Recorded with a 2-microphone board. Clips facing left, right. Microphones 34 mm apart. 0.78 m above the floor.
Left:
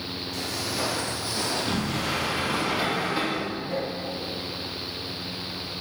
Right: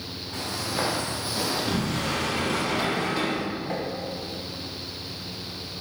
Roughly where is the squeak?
No squeak in this recording.